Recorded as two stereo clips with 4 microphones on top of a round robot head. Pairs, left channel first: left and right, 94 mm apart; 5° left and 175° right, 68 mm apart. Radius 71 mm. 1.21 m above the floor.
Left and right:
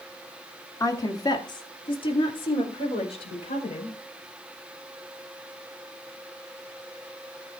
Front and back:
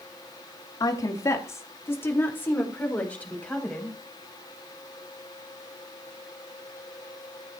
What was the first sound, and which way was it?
A woman speaking, 35° left.